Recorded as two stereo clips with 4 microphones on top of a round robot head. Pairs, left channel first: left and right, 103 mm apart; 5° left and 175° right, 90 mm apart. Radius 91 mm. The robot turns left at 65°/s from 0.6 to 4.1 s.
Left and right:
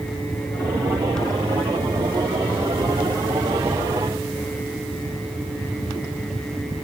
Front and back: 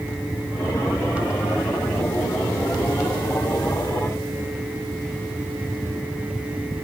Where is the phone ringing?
I don't hear a phone ringing.